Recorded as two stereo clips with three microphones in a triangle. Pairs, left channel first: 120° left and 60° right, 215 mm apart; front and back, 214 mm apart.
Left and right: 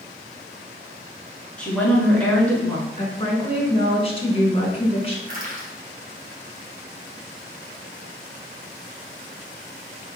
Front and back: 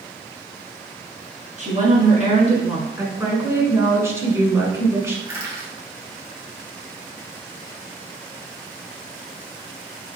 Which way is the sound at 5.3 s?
105° right.